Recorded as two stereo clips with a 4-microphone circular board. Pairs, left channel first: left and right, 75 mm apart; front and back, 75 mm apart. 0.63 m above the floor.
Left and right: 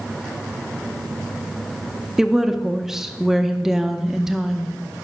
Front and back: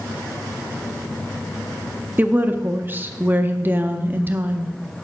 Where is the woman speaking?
170° right, 0.5 m.